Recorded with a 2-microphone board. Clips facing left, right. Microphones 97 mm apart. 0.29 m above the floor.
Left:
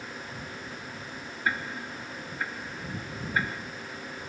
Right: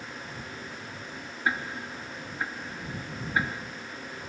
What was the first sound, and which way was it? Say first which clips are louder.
Ticking: right 1 dB; 15° right (ahead or behind).